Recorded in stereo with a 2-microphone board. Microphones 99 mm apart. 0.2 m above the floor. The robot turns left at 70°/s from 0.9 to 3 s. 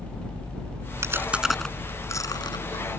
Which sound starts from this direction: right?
Chewing, at 1.0 s.